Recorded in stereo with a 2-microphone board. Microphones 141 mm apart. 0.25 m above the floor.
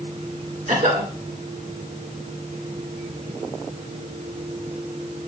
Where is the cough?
65° right (ahead or behind), 2.5 m.